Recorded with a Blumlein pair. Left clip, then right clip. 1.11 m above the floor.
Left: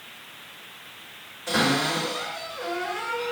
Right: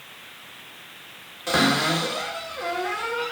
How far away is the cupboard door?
About 1.9 m.